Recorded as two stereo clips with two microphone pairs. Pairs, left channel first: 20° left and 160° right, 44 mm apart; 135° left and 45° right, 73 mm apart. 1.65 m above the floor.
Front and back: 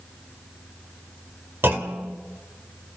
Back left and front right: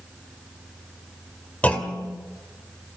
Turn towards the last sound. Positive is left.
turn(degrees=-160)